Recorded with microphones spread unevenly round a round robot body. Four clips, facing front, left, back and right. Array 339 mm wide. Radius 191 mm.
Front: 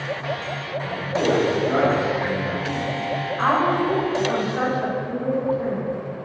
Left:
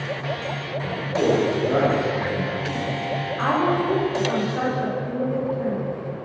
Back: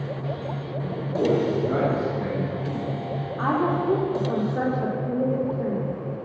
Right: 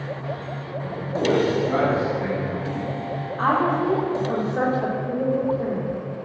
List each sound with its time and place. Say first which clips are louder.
0.8 s a man speaking: left 2 dB, front 1 dB; 155° left, 3 m; by 3.0 s 150° left, 5 m
3.4 s a woman speaking: right 1 dB, front 3 dB; straight behind, 2.5 m